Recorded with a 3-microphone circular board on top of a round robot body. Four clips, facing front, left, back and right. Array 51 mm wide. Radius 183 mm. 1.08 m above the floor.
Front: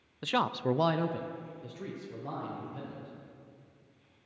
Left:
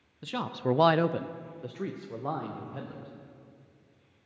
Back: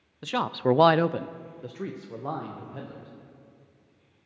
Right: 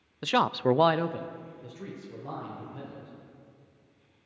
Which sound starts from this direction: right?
A man speaking, at 0.2 s.